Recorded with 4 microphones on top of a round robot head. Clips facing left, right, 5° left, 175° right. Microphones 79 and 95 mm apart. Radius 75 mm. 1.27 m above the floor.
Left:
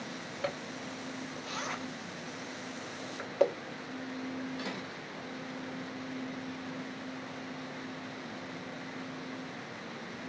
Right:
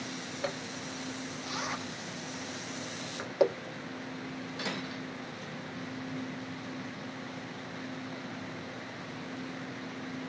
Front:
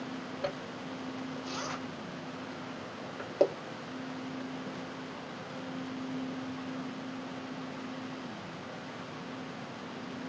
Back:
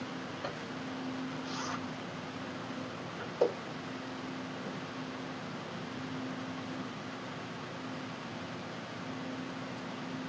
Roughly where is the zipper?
Ahead.